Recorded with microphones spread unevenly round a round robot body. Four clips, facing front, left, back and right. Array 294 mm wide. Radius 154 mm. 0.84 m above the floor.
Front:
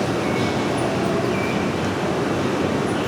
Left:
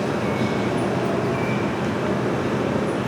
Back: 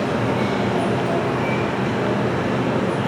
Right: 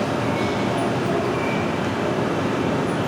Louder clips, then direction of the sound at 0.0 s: Right 1 dB, even; 10° left.